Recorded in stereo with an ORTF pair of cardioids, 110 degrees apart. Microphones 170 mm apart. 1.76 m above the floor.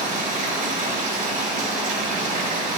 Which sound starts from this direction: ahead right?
Running water, at 0.0 s.